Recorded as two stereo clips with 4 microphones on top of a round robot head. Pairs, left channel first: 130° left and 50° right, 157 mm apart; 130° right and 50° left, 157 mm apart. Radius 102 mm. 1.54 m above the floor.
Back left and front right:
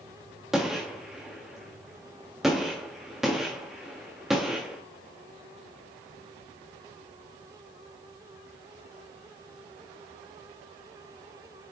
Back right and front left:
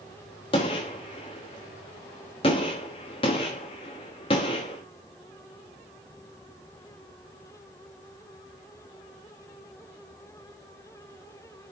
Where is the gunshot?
135° right, 1.0 m.